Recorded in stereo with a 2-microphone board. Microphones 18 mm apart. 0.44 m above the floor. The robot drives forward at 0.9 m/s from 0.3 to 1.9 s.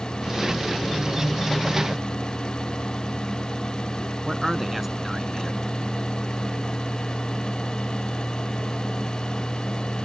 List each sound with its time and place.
4.2 s a man speaking: 10° right (ahead or behind)